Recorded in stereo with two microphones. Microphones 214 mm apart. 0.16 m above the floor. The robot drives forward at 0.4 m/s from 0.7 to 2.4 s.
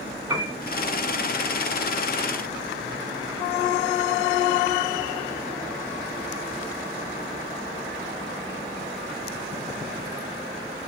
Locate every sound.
0.3 s a piano: 15° right (ahead or behind), 1.0 m